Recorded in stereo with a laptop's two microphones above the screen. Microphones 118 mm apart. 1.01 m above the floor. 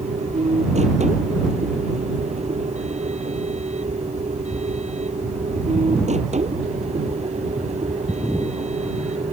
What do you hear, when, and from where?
0.0 s a machine running: 75° right (ahead or behind)